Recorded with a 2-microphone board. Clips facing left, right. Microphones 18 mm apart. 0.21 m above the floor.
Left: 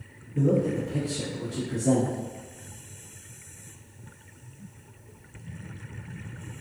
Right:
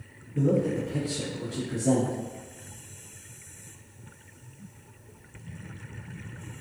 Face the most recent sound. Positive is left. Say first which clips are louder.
# left 1 dB
turn(degrees=-10)  # may be behind; listen again after turning